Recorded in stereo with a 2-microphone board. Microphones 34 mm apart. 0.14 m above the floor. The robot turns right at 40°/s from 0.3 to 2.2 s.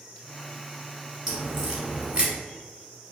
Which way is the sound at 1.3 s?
10° right (ahead or behind).